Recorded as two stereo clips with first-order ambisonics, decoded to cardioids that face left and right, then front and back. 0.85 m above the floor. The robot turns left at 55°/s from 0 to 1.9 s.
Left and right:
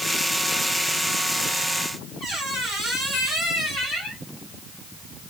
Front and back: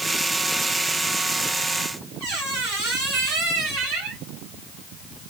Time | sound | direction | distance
2.2 | a squeak | 165° right | 2 m